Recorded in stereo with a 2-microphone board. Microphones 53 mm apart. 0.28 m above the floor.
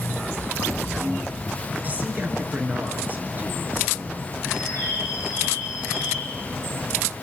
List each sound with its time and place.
1.8 s a man speaking: 35° right (ahead or behind), 5 m
4.5 s a bird: 85° left, 10 m